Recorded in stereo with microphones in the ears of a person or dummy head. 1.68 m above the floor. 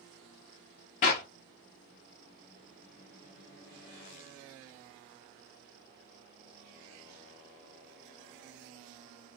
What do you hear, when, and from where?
1.0 s a clap: 35° left (ahead or behind), 0.8 m